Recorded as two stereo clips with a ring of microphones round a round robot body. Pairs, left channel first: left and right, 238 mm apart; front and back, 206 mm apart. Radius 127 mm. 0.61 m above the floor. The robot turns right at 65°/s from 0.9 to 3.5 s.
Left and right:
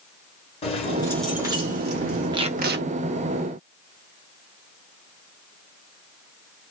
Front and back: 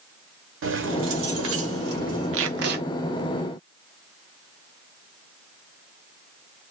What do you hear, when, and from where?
0.6 s keys jangling: 160° left, 1.0 m; by 2.4 s 110° right, 1.0 m
2.3 s tape being pulled: 165° right, 0.6 m; by 2.8 s 130° right, 0.6 m